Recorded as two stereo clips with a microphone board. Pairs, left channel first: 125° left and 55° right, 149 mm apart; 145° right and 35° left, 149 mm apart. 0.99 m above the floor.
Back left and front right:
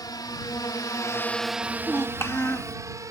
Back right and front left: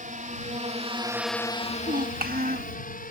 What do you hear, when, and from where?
0.0 s a drone: 60° left; by 3.1 s 125° right
1.6 s a child speaking: 50° left